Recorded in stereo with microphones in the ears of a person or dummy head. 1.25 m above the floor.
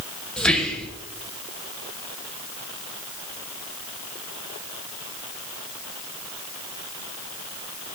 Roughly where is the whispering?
Centre.